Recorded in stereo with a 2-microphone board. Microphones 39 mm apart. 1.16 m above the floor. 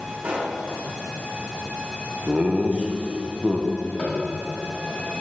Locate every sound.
0.2 s a pop: 55° right (ahead or behind), 1.7 m
2.3 s laughter: 30° right (ahead or behind), 0.8 m
4.0 s tapping: 35° left (ahead or behind), 2.5 m